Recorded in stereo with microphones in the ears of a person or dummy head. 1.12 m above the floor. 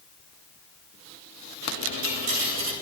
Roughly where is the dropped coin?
Right.